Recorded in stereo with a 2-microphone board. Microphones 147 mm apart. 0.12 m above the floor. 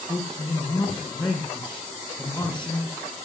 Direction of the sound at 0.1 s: 30° left (ahead or behind).